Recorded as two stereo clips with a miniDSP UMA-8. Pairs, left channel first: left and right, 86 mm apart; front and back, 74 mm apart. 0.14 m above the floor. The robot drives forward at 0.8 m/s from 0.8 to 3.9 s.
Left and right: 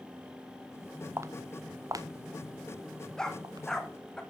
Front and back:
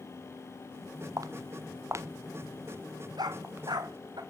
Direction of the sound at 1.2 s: 145° right.